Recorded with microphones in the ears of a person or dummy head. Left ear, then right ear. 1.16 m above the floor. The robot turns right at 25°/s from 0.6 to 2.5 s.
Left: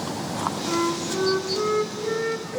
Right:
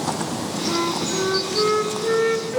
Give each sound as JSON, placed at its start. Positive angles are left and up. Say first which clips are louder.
{"t": 0.7, "sound": "a flute", "louder": "right 4 dB", "azimuth_deg": 165, "distance_m": 1.0}